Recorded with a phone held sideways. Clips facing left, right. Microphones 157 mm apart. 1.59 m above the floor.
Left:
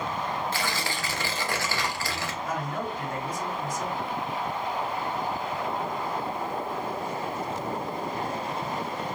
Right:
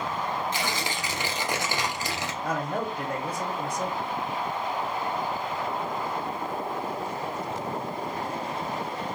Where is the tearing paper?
20° right (ahead or behind), 0.6 m.